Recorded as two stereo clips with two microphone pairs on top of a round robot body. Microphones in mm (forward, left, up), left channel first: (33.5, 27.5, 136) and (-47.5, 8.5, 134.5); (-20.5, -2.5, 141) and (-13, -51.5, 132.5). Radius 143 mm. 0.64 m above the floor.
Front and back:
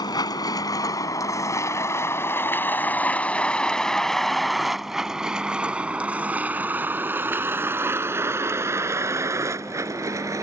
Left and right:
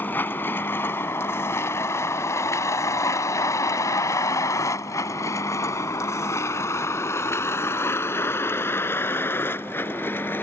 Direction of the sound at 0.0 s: 50° left.